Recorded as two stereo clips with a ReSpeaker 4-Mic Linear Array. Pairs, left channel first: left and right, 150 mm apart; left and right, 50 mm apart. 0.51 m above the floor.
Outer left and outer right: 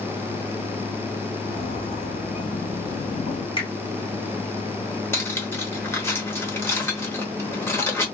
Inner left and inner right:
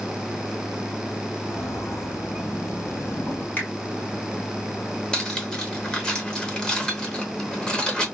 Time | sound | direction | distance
1.4 | footsteps | 70° left (ahead or behind) | 1.7 m
3.6 | a finger snap | 35° left (ahead or behind) | 1.3 m
5.1 | cutlery clinking | 15° left (ahead or behind) | 0.8 m